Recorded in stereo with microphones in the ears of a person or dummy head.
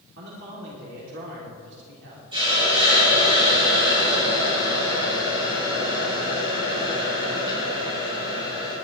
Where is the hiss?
30° right (ahead or behind), 4.5 m.